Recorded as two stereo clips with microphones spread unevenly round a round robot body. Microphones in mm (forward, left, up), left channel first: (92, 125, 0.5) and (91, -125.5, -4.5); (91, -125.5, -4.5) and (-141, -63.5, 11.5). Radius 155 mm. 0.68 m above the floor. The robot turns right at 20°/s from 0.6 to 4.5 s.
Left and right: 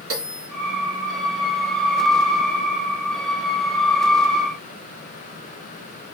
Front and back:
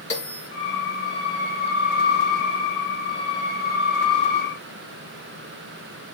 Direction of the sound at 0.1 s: 60° right.